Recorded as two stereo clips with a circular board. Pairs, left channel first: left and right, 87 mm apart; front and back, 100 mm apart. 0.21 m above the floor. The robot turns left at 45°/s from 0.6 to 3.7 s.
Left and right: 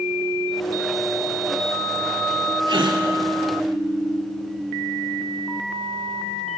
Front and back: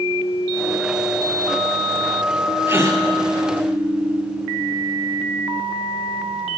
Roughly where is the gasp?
Behind right.